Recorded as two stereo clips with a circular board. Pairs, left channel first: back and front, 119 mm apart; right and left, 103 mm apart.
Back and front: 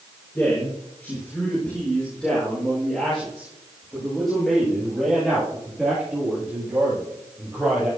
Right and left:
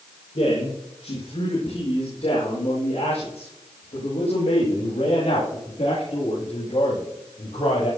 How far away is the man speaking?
About 6 m.